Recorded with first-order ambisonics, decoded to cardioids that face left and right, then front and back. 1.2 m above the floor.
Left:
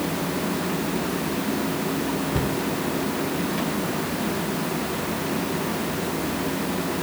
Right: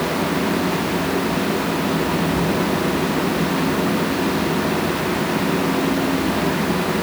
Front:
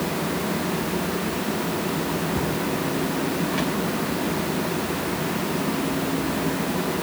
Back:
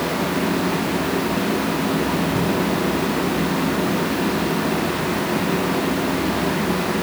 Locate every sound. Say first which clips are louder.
2.3 s a cupboard door: right 5 dB, back 4 dB; 115° left, 3 m